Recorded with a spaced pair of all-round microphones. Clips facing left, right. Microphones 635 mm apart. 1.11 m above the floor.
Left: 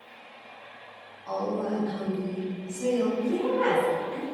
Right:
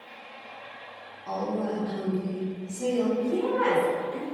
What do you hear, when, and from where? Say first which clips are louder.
1.3 s a woman speaking: even; 60° right (ahead or behind), 0.9 m
3.2 s a woman speaking: even; 50° right (ahead or behind), 1.9 m